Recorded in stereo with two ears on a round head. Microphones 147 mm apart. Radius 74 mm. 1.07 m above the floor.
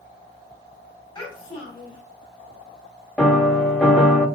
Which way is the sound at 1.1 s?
30° left (ahead or behind).